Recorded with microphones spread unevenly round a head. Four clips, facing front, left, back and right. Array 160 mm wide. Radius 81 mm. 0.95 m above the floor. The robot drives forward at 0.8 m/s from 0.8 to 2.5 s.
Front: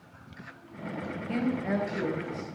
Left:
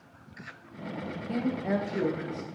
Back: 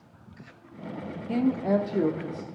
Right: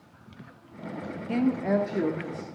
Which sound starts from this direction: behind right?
A woman speaking, at 1.3 s.